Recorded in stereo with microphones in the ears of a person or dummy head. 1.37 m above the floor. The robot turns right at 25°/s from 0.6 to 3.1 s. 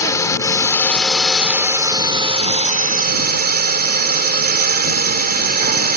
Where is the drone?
160° left; by 6.0 s 135° right.